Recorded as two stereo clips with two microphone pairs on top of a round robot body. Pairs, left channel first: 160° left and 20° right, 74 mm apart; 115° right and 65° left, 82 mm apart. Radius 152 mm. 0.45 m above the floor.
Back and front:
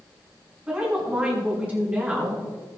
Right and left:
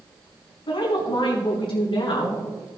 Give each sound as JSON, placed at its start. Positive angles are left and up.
{"t": 0.7, "sound": "a woman speaking", "azimuth_deg": -95, "distance_m": 4.5}